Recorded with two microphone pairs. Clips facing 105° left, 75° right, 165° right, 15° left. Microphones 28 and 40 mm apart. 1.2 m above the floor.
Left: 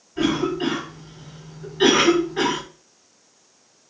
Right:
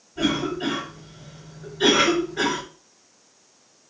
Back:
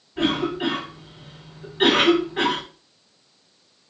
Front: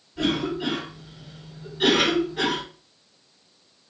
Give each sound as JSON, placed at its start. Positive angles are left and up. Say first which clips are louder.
{"t": 0.2, "sound": "a cough", "louder": "left 2 dB, back 2 dB", "azimuth_deg": 150, "distance_m": 2.5}